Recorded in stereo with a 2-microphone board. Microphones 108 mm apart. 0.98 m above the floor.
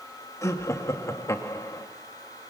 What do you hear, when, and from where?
0.4 s laughter: 30° left (ahead or behind), 1.9 m